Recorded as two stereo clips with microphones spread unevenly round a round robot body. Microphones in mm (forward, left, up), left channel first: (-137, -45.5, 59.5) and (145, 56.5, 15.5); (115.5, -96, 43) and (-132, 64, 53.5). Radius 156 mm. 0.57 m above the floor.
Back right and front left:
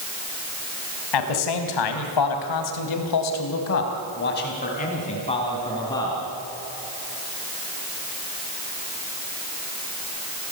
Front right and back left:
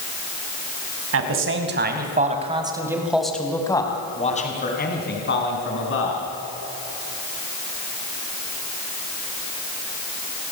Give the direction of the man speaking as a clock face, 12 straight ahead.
6 o'clock.